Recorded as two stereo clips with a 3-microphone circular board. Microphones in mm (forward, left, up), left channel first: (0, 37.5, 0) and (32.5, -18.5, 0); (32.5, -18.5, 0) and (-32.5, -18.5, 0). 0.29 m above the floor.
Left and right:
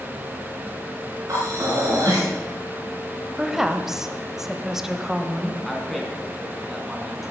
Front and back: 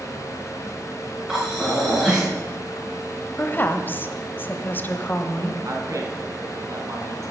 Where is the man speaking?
150° right, 3 m.